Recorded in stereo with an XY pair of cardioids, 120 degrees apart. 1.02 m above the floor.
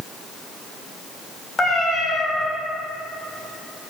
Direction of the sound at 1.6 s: 35° left.